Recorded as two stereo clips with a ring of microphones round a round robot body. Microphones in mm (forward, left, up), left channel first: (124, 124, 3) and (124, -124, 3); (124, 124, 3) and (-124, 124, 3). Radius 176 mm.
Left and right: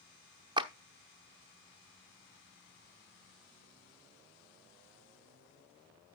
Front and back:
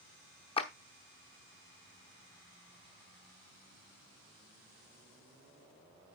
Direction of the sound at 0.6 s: 40° right.